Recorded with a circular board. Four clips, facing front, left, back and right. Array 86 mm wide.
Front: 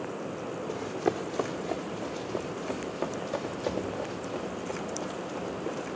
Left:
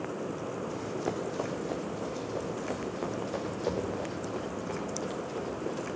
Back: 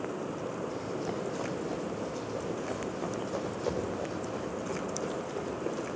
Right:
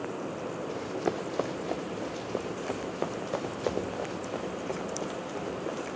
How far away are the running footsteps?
About 3 m.